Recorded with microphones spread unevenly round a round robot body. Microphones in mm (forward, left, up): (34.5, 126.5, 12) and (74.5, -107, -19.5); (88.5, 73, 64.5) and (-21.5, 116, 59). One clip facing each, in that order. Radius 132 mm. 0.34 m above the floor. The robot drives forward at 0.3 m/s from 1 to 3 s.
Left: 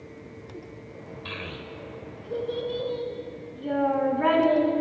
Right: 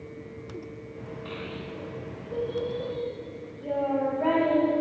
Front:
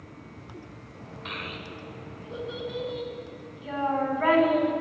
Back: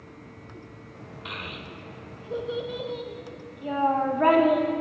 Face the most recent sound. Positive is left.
turn(degrees=130)